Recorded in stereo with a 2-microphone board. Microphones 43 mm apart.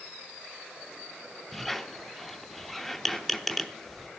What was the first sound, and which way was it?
A squeak, centre (ahead or behind).